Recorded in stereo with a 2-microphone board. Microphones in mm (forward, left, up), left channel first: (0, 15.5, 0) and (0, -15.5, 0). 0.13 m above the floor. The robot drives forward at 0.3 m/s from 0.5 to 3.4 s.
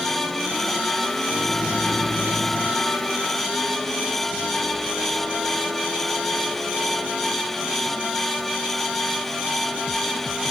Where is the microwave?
35° left (ahead or behind); by 2.8 s 40° left (ahead or behind).